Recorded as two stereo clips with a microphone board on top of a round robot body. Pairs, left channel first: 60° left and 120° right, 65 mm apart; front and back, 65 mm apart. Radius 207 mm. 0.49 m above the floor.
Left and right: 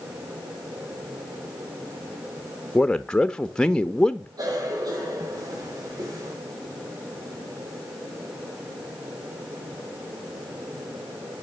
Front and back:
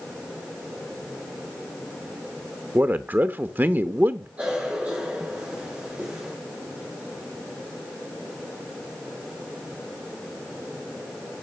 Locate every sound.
2.8 s a man speaking: 135° left, 1.0 m
4.4 s a cough: 110° right, 3 m